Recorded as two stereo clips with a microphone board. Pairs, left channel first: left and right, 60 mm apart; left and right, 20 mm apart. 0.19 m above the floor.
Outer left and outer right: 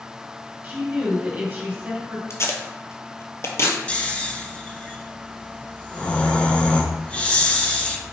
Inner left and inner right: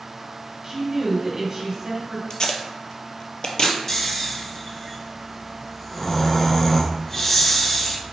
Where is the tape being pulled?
50° left (ahead or behind), 0.7 m.